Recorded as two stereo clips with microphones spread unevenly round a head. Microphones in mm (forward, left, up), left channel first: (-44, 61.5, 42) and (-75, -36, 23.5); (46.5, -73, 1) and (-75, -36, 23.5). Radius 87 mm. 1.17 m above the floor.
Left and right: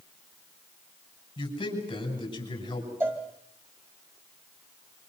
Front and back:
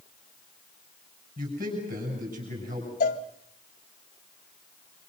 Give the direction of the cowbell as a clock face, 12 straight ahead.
1 o'clock.